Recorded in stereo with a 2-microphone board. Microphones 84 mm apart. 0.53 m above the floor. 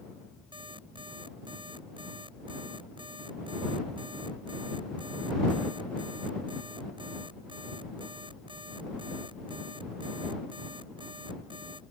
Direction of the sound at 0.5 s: 75° right (ahead or behind).